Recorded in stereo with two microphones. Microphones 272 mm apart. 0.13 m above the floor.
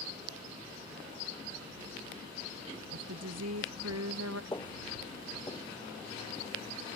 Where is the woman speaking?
70° right (ahead or behind); by 4.4 s 60° right (ahead or behind).